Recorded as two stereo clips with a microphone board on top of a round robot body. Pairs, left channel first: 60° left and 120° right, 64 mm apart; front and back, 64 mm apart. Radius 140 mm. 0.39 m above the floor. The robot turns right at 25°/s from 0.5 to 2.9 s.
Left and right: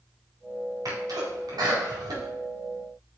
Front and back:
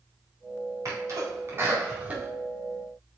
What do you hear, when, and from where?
0.8 s a sneeze: 145° right, 4 m; by 2.3 s 110° right, 4 m